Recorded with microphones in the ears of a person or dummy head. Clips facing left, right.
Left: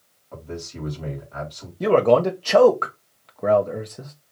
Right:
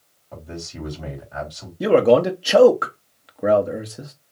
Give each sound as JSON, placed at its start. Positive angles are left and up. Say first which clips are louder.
{"t": 0.3, "sound": "a man speaking", "louder": "left 1 dB", "side_deg": -10, "distance_m": 3.0}
{"t": 1.8, "sound": "a man speaking", "louder": "right 2 dB", "side_deg": -10, "distance_m": 0.9}